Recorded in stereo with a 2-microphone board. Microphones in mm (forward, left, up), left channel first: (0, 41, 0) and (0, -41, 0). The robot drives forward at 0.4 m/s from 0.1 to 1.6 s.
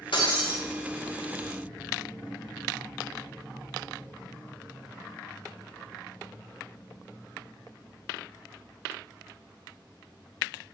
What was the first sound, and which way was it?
Breaking glass, 75° left (ahead or behind).